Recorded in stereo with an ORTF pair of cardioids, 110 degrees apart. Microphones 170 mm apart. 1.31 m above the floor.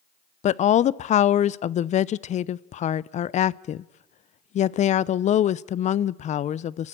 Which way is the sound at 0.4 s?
45° left.